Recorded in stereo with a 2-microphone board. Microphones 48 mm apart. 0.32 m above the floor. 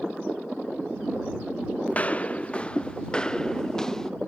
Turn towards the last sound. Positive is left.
turn(degrees=10)  # may be behind; listen again after turning